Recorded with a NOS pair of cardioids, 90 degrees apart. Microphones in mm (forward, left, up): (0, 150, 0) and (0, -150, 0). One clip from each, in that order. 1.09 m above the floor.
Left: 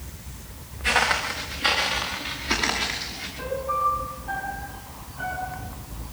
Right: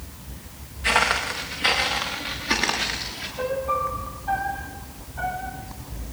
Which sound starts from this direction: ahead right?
A piano, at 3.4 s.